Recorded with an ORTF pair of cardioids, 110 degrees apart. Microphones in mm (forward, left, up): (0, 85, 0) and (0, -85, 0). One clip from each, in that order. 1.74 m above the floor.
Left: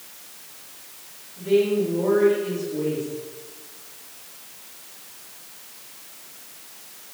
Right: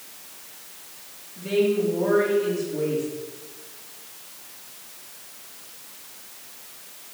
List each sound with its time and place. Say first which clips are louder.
1.4 s a woman speaking: left 2 dB; 60° right, 5 m